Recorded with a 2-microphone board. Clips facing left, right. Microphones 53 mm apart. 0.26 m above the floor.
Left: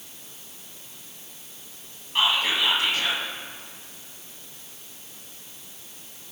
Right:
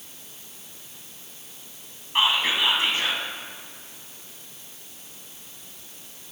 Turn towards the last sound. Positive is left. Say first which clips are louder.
# right 1 dB
turn(degrees=-25)  # may be behind; listen again after turning